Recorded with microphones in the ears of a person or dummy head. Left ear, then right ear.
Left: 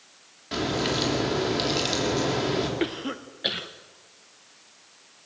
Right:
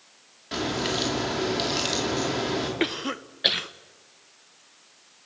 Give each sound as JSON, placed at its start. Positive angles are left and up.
{"t": 0.5, "sound": "a crack", "side_deg": -10, "distance_m": 3.5}
{"t": 2.8, "sound": "a cough", "side_deg": -30, "distance_m": 0.9}